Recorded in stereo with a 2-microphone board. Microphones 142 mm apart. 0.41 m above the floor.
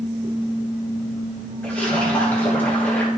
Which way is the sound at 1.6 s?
10° left (ahead or behind).